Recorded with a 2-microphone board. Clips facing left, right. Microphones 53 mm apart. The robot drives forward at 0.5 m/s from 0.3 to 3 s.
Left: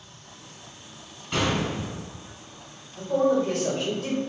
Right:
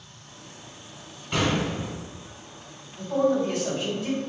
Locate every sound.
1.3 s an explosion: centre (ahead or behind), 1.4 m
3.0 s a man speaking: 55° left (ahead or behind), 1.4 m